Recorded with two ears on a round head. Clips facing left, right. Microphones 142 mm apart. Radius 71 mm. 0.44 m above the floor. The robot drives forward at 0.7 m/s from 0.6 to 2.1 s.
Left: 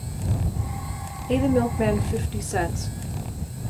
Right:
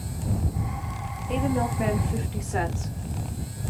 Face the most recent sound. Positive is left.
turn(degrees=45)  # may be behind; listen again after turning